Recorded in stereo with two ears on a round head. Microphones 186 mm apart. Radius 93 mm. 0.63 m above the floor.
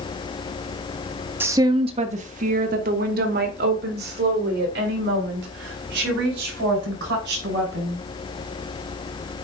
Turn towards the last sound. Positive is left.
turn(degrees=-65)  # may be behind; listen again after turning